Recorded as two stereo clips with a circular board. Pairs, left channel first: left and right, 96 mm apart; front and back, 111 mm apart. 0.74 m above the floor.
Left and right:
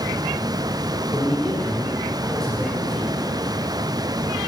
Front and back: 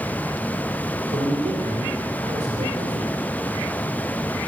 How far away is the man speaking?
About 2 m.